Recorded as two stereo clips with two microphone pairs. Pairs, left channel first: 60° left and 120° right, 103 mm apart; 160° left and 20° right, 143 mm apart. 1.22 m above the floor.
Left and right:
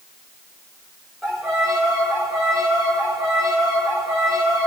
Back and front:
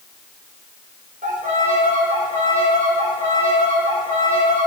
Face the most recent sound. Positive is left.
turn(degrees=-30)